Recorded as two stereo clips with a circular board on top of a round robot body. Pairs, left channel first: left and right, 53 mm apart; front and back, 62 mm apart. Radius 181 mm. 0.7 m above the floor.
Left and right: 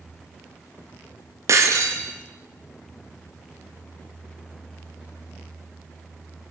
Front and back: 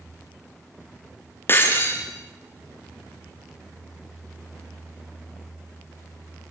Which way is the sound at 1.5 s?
55° right.